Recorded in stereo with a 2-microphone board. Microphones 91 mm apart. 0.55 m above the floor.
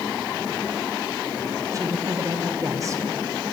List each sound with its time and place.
1.7 s a woman speaking: 35° right (ahead or behind), 1.4 m